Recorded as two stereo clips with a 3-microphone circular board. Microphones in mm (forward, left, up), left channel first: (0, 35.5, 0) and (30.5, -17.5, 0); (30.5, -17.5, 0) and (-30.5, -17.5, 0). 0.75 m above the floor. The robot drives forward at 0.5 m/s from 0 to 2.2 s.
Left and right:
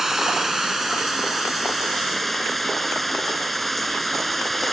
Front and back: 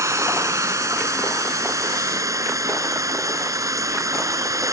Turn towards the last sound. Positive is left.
turn(degrees=-150)